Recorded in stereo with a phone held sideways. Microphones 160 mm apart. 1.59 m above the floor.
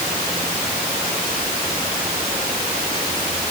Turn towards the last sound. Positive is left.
No sound to turn to.